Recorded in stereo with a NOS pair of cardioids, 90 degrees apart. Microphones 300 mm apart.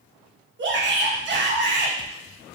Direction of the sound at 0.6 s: 40° right.